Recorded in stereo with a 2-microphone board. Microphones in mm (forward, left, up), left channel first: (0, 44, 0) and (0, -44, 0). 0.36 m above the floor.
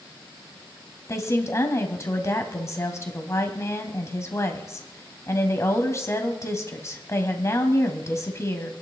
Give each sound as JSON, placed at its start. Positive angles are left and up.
{"t": 1.1, "sound": "a woman speaking", "side_deg": 35, "distance_m": 1.8}